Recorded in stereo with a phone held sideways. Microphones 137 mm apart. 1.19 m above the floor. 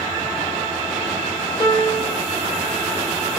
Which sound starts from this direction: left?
A piano, at 1.6 s.